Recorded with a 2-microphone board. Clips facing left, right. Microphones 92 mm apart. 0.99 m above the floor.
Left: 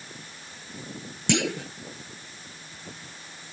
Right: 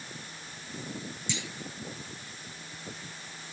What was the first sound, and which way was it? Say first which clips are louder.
A clunk: left 15 dB; 70° left (ahead or behind).